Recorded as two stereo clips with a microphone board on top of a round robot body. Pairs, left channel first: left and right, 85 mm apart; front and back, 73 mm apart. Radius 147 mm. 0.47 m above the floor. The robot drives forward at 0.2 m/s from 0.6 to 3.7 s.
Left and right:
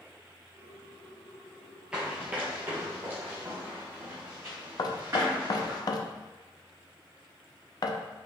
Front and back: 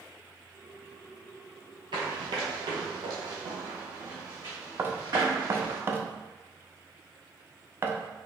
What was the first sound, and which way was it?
Running footsteps, 170° right.